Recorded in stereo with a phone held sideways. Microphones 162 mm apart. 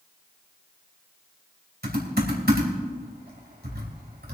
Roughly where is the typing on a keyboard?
Right.